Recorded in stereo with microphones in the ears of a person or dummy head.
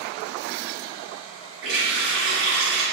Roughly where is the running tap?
Right.